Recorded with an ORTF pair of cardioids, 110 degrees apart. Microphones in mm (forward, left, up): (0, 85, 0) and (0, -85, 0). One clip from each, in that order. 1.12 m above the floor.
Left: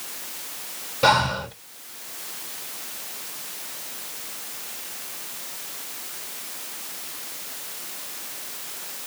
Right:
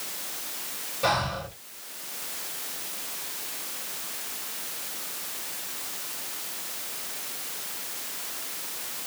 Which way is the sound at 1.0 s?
50° left.